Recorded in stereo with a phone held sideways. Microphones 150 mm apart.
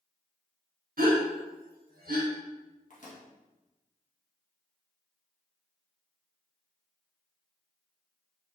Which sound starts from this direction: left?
A microwave, at 2.9 s.